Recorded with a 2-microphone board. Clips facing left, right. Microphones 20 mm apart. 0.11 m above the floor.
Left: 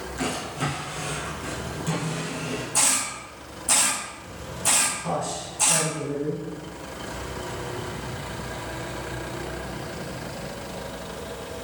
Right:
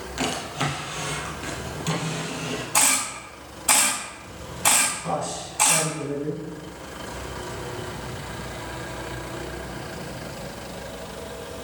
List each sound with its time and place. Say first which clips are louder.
0.2 s a drawer: right 2 dB; 45° right (ahead or behind), 1.9 m
2.7 s a camera shutter: right 3 dB; 65° right (ahead or behind), 3 m
5.0 s a man speaking: even; 10° right (ahead or behind), 1.8 m